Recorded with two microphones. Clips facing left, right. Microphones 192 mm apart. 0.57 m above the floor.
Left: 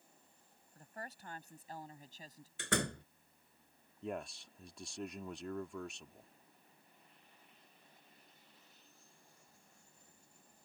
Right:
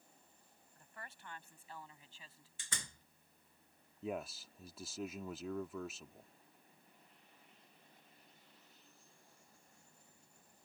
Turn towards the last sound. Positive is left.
turn(degrees=-5)  # may be behind; listen again after turning